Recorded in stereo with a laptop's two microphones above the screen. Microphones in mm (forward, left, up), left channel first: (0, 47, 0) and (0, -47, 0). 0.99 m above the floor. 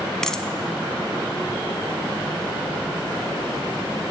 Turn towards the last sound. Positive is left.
turn(degrees=5)  # may be behind; listen again after turning